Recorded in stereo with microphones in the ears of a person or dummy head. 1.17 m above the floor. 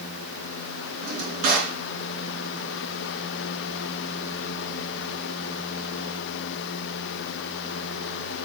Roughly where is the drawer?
Right.